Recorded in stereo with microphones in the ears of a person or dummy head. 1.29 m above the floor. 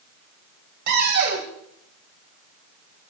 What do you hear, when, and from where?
0.9 s a cupboard door: 55° right (ahead or behind), 2.5 m